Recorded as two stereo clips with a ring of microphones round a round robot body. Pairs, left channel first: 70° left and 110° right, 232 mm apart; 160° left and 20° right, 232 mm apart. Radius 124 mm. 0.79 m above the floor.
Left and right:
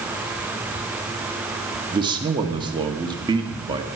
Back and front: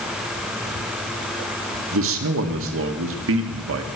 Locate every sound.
1.9 s a man speaking: 45° right, 1.5 m